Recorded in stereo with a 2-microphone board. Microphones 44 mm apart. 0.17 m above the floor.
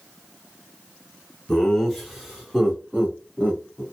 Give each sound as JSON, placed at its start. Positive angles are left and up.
{"t": 1.5, "sound": "laughter", "side_deg": 10, "distance_m": 1.3}